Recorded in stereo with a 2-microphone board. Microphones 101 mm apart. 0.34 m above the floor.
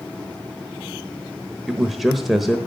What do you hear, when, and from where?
1.7 s a man speaking: centre (ahead or behind), 0.9 m